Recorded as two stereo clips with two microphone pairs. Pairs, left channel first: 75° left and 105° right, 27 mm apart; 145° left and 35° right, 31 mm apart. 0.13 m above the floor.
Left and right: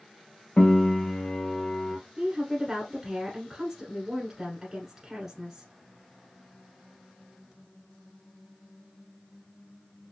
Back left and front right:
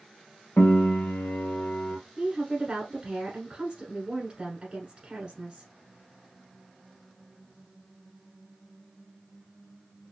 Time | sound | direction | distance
0.6 | a piano | 130° left | 0.9 m
2.2 | a woman speaking | 55° right | 1.3 m